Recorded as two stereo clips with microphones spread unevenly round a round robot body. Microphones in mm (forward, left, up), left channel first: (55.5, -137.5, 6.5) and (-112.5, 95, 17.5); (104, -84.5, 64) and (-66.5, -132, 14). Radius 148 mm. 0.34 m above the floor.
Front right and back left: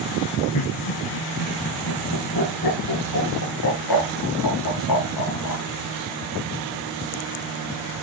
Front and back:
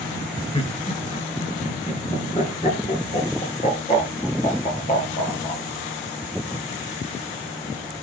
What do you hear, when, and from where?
0.5 s laughter: 45° right, 5 m; by 5.6 s 30° right, 8 m